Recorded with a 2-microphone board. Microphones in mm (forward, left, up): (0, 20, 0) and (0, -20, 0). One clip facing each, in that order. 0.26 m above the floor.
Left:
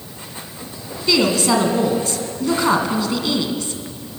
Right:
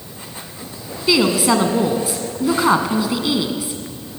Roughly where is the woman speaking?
Centre.